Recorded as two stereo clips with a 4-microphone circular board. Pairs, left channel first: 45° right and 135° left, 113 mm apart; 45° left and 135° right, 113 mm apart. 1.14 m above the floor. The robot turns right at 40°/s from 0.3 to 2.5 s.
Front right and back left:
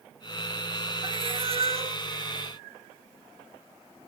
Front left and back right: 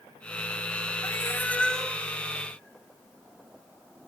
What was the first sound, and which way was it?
A cat meowing, 100° left.